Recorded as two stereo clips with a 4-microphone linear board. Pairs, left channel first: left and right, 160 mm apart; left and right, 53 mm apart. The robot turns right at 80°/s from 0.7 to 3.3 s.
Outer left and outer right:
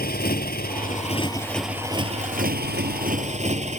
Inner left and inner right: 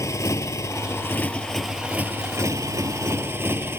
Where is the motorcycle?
105° left; by 3.8 s 45° right.